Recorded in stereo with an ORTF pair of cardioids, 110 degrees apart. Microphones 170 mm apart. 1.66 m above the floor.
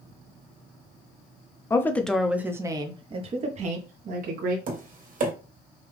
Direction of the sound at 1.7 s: 15° left.